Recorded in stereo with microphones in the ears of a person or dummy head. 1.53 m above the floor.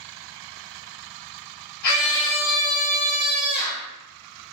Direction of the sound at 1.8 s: 55° left (ahead or behind).